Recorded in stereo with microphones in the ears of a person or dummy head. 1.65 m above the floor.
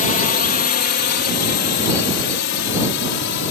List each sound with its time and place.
0.0 s a drone: 40° left (ahead or behind); by 3.5 s 65° left (ahead or behind)